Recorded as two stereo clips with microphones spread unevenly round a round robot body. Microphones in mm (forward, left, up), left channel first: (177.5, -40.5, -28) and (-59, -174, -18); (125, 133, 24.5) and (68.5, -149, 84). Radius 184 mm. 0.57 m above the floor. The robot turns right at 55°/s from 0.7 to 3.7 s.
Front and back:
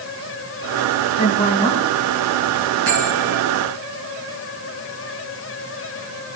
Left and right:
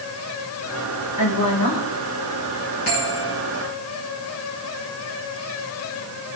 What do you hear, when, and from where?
1.2 s a woman speaking: 80° left, 4 m; by 1.9 s 120° left, 4 m
2.9 s a bell: 150° left, 6.5 m; by 3.4 s straight behind, 6.5 m